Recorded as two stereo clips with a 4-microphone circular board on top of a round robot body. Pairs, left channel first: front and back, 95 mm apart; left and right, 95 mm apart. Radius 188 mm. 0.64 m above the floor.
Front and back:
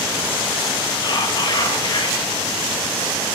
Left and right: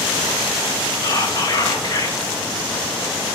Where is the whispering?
40° left, 1.6 m.